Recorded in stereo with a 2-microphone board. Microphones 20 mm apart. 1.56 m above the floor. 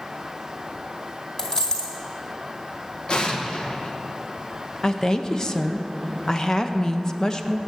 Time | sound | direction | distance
1.4 | a dropped coin | 30° left (ahead or behind) | 2.5 m
3.1 | an explosion | 40° left (ahead or behind) | 0.9 m
4.8 | a woman speaking | 30° left (ahead or behind) | 0.6 m